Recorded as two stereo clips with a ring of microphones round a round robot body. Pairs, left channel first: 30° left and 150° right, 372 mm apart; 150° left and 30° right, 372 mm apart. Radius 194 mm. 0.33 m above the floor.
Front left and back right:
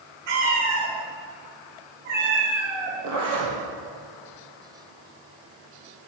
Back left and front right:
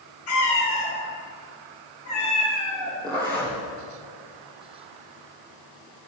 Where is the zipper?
110° right, 2 m.